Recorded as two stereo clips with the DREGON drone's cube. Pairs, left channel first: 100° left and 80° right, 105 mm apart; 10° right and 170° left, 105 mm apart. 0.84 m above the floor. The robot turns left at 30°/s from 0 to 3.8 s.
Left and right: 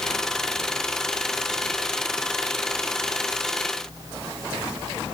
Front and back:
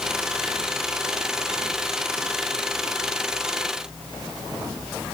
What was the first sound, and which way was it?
Only background noise.